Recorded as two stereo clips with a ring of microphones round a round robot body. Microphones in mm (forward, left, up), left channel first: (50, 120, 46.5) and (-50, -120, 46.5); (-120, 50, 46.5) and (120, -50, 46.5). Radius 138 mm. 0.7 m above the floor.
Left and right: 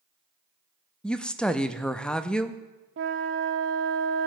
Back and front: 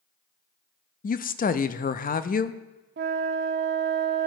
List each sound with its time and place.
1.0 s a woman speaking: 150° left, 0.5 m
3.0 s a flute: 70° right, 0.8 m